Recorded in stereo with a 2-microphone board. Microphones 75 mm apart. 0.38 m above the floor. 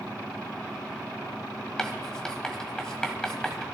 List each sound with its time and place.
1.8 s writing: 10° left (ahead or behind), 1.6 m